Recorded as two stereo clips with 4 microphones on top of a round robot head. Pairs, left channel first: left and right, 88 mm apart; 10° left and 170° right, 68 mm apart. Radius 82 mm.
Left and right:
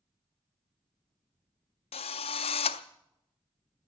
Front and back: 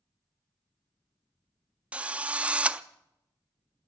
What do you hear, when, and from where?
1.9 s a drill: 120° left, 0.5 m